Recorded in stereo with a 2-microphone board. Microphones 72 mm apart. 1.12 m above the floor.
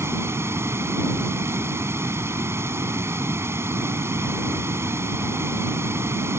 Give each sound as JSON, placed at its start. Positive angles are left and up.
{"t": 0.0, "sound": "running water", "side_deg": -35}